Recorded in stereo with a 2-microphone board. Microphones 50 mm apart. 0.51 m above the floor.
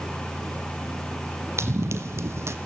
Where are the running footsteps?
60° right (ahead or behind), 1.7 m.